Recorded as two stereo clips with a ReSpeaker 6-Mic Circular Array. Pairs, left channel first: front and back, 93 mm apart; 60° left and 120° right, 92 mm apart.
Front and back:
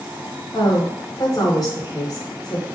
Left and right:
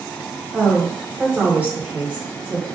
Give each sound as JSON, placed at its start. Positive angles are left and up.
{"t": 0.5, "sound": "a woman speaking", "azimuth_deg": -45, "distance_m": 1.0}